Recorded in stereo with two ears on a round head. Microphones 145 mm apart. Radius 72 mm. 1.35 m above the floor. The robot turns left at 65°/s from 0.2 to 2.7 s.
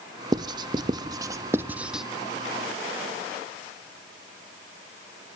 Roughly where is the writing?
Right.